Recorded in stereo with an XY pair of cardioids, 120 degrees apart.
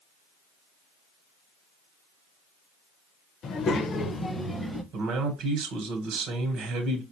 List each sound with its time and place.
3.4 s a child speaking: 55° left, 0.8 m; by 4.8 s straight ahead, 0.7 m
4.9 s a man speaking: 65° right, 0.9 m